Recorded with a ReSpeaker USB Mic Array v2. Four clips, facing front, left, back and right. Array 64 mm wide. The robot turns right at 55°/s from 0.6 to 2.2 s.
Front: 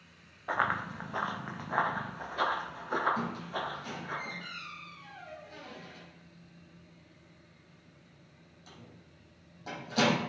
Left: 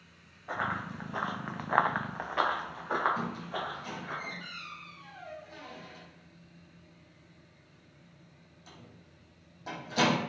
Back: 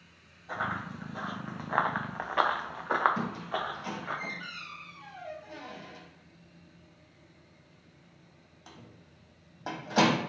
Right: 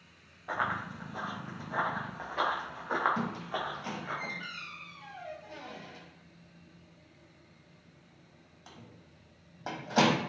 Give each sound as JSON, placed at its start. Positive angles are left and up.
{"t": 0.5, "sound": "running footsteps", "azimuth_deg": -10, "distance_m": 0.9}
{"t": 3.2, "sound": "a squeak", "azimuth_deg": -135, "distance_m": 1.0}